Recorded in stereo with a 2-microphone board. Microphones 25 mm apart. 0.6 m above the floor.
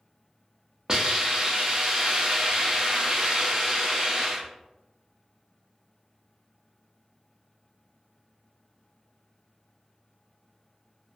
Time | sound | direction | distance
0.9 | a hiss | 35° right (ahead or behind) | 0.5 m